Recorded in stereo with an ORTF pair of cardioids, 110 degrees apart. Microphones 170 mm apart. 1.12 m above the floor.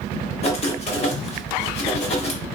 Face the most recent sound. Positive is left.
turn(degrees=35)